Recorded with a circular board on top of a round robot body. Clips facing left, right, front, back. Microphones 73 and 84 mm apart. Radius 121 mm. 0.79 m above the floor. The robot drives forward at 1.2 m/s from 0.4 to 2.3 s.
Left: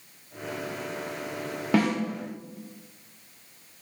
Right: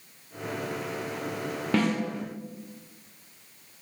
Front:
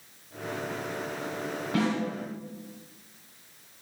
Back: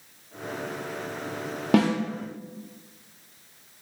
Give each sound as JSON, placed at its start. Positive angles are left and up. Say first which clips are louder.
{"t": 1.7, "sound": "a snare drum", "louder": "left 2 dB, back 7 dB", "azimuth_deg": 175, "distance_m": 0.9}